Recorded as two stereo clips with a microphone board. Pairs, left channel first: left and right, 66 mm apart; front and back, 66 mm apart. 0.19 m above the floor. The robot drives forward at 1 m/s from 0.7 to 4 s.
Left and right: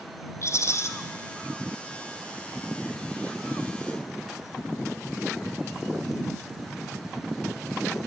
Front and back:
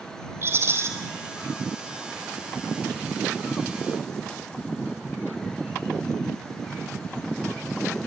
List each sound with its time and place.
0.4 s a rattle: 130° left, 2 m; by 0.9 s 135° left, 2.5 m